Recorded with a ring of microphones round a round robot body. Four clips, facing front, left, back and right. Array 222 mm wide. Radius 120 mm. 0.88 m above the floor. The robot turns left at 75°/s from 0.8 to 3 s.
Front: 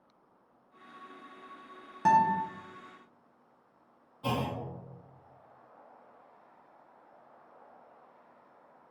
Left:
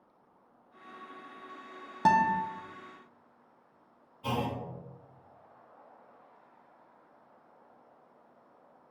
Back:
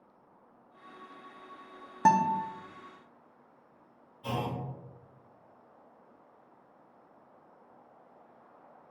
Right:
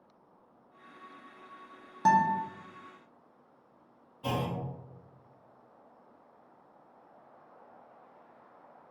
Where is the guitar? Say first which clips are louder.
Even, even; 150° left, 0.5 m; by 2.4 s 120° left, 0.5 m.